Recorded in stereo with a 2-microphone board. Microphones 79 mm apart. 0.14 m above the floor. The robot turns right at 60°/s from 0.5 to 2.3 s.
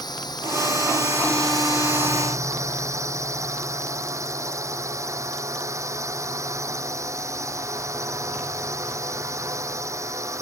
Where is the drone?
115° left; by 10.4 s 140° right.